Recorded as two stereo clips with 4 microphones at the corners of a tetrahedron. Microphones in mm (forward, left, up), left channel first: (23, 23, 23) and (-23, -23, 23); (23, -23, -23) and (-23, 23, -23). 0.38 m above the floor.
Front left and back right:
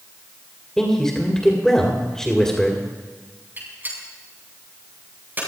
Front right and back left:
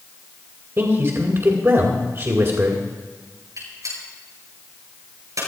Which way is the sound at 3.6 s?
165° left.